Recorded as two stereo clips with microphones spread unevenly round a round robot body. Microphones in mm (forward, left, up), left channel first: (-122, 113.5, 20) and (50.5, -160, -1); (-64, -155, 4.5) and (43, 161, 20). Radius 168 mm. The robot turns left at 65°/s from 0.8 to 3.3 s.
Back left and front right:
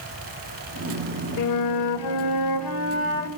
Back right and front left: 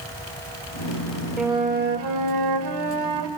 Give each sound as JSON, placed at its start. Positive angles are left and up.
{"t": 1.4, "sound": "a flute", "azimuth_deg": 160, "distance_m": 2.0}